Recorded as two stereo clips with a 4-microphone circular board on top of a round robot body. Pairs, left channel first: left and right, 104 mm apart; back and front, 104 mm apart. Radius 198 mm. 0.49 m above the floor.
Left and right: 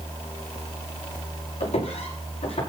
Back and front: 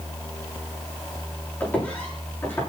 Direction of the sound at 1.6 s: 105° left.